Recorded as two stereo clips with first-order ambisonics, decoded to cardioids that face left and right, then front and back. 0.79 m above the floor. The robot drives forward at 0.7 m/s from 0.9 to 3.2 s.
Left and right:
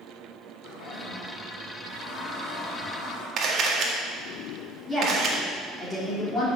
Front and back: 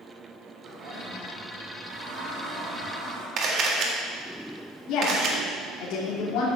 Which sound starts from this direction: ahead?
A woman speaking, at 4.9 s.